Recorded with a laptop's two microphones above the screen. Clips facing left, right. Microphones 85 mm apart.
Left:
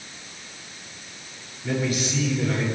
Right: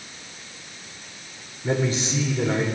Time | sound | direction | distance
1.6 | a man speaking | 35° right (ahead or behind) | 3 m